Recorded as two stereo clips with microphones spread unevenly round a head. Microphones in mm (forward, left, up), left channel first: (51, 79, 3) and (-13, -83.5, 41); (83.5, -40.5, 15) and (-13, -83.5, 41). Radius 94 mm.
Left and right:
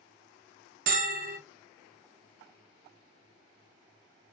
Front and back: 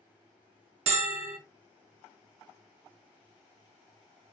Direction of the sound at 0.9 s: 150° right.